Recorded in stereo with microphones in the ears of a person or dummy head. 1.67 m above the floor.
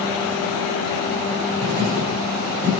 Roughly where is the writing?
Right.